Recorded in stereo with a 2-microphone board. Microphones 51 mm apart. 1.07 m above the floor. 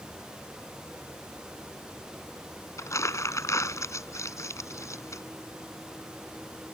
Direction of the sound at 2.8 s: 75° left (ahead or behind).